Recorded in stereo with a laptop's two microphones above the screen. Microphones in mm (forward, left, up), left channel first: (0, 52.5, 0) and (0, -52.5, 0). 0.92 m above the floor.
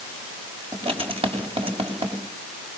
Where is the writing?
60° right (ahead or behind), 6 m.